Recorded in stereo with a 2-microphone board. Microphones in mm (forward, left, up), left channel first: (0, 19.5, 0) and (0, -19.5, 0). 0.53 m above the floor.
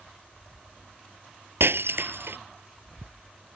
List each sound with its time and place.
1.6 s breaking glass: 80° right